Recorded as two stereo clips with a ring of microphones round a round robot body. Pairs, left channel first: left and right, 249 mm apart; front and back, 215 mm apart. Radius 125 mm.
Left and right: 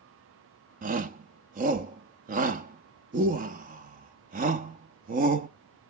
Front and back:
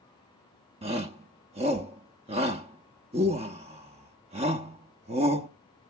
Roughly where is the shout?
Behind right.